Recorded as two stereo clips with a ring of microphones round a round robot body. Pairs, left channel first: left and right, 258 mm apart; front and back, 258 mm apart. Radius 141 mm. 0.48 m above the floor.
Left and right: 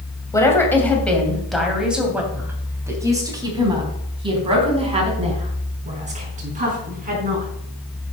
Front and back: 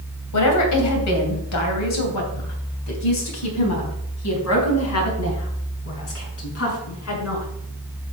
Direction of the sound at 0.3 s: 15° left.